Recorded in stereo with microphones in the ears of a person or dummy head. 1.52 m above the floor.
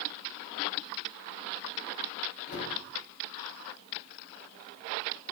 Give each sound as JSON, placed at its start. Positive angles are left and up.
{"t": 2.5, "sound": "a cupboard door", "side_deg": 65, "distance_m": 4.0}